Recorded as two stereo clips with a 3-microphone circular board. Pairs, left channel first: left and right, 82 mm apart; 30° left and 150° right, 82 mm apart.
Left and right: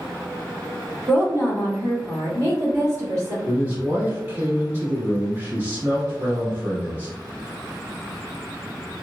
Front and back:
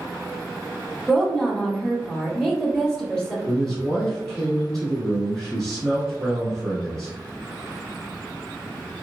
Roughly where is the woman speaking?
Ahead right.